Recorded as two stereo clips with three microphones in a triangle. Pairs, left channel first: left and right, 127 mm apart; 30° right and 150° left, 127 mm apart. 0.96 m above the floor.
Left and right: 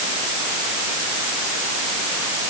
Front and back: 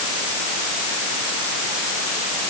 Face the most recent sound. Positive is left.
No sound to turn to.